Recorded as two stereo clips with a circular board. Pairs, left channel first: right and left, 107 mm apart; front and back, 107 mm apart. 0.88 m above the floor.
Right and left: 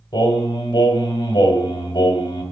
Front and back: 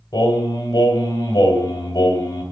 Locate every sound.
0.1 s singing: 50° right, 2 m